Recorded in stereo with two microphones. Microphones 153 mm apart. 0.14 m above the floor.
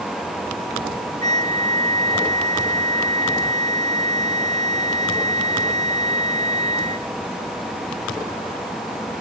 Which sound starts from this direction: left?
A flute, at 1.2 s.